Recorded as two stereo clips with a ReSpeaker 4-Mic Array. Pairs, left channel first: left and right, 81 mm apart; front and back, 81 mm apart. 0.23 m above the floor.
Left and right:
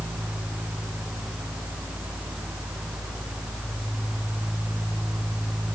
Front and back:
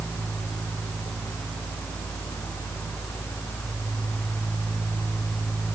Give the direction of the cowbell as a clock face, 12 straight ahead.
I don't hear a cowbell.